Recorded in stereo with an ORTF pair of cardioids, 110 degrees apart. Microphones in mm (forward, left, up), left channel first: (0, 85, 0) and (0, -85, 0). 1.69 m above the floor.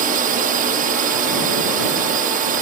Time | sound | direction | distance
0.0 | a drone | 55° right | ?